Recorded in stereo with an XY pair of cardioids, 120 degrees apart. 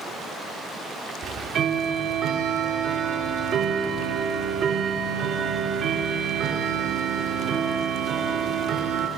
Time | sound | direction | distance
1.2 | ticking | 55° right | 2 m